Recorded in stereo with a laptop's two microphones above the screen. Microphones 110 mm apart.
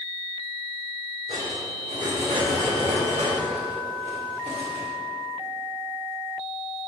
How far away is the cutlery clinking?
About 1.6 m.